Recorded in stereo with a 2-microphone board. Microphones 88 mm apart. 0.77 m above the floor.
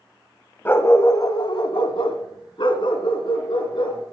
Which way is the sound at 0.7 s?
25° left (ahead or behind).